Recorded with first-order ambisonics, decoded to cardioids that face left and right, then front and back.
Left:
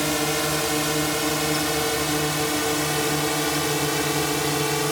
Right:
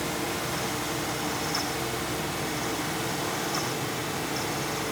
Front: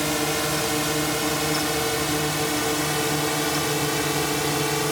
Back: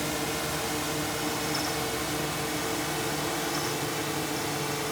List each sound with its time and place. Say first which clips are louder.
0.0 s a drone: left 7 dB, front 6 dB; 55° left; by 4.9 s 50° left